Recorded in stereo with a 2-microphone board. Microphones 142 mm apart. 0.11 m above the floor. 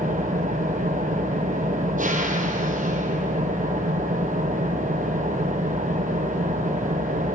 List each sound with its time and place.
0.0 s an engine running: 70° right (ahead or behind), 1.3 m